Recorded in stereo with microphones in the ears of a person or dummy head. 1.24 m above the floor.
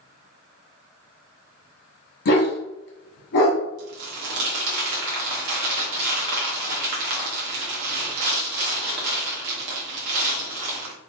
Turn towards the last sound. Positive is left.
turn(degrees=-55)  # may be behind; listen again after turning